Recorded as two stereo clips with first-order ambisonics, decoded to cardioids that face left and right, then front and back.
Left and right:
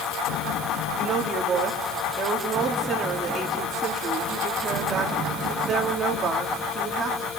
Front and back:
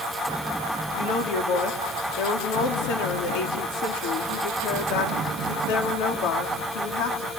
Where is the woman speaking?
20° right, 3 m.